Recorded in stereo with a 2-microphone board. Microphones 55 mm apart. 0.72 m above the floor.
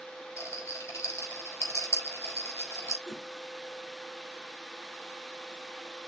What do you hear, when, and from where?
0.4 s a rattle: 60° left (ahead or behind), 4 m
3.0 s a whoosh: 50° left (ahead or behind), 2.0 m